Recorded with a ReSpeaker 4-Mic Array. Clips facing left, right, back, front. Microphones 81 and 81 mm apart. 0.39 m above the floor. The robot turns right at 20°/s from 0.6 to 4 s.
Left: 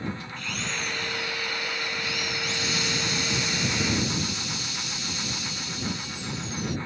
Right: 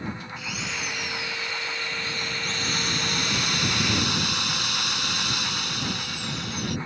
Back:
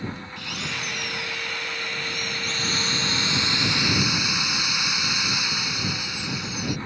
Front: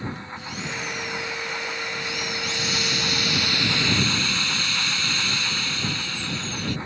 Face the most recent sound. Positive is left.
turn(degrees=-105)